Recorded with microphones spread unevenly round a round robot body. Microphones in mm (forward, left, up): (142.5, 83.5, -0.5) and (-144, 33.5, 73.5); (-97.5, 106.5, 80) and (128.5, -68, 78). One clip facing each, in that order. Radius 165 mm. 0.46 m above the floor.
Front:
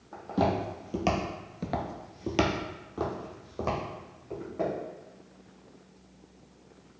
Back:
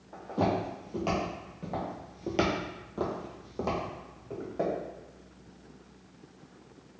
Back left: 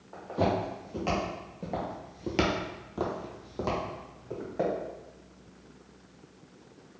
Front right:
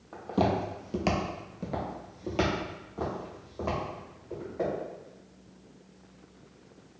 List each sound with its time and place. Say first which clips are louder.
0.1 s footsteps: front 1 dB, front right 1 dB; 50° right, 1.2 m; by 4.7 s 110° left, 2 m